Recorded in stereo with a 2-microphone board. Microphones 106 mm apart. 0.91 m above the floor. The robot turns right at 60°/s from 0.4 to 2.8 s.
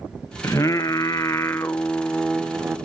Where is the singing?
65° left, 0.5 m; by 2.8 s 155° right, 0.5 m.